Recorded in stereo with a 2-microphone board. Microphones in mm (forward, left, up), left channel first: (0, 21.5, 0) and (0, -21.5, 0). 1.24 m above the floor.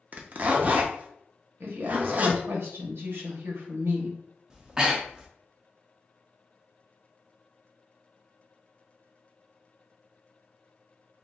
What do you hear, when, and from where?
0.1 s a zipper: 40° right (ahead or behind), 0.5 m
1.6 s a woman speaking: 65° right (ahead or behind), 0.9 m
4.5 s breathing: 15° right (ahead or behind), 0.5 m